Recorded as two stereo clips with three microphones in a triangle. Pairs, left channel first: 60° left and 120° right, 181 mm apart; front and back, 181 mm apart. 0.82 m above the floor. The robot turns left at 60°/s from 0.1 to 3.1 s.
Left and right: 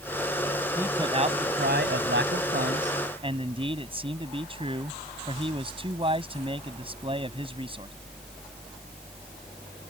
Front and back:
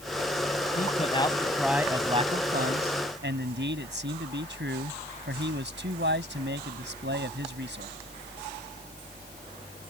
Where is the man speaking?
40° right; by 7.9 s straight behind.